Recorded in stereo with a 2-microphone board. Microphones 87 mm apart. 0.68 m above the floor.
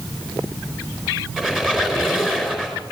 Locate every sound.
1.4 s a squeak: 5° right (ahead or behind), 4.5 m